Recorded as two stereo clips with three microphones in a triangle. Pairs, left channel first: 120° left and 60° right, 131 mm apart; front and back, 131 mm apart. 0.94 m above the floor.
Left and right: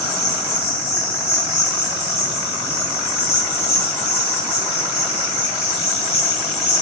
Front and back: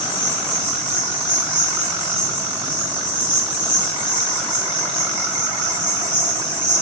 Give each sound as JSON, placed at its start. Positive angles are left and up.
{"t": 0.0, "sound": "an insect", "azimuth_deg": 55, "distance_m": 3.0}